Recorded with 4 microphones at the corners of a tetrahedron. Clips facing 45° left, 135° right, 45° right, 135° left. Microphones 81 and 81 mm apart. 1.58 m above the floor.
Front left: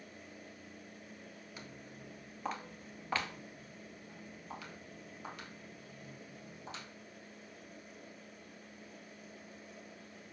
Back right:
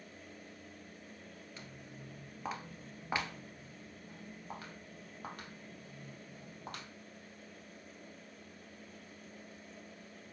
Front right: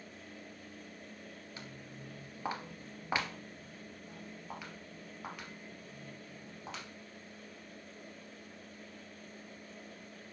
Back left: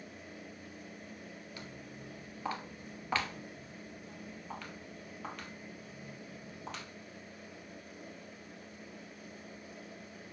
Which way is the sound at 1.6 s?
15° right.